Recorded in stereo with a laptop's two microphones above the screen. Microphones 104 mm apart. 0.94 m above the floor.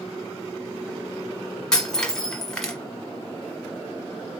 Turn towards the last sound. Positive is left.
turn(degrees=5)  # may be behind; listen again after turning